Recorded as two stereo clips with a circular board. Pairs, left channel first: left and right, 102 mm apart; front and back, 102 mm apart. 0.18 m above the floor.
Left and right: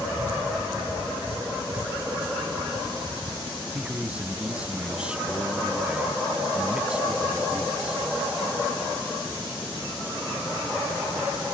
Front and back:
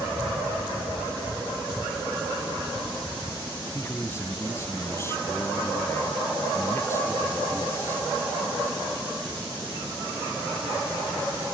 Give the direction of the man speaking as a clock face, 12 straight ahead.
1 o'clock.